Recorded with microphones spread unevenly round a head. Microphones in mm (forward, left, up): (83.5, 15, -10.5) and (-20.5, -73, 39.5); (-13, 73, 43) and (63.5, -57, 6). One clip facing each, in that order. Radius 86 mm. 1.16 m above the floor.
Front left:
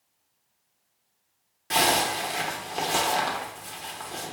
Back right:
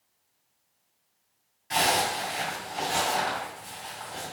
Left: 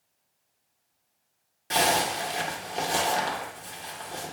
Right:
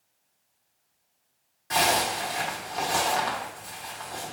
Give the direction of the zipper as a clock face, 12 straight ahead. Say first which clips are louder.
Front left 2 dB, even; 10 o'clock.